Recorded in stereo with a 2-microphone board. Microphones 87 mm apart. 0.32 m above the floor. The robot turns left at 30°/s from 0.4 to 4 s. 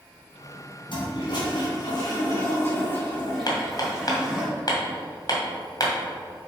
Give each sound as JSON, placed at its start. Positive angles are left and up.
{"t": 0.9, "sound": "a toilet flushing", "azimuth_deg": 85, "distance_m": 2.5}
{"t": 3.5, "sound": "hammering", "side_deg": 55, "distance_m": 1.8}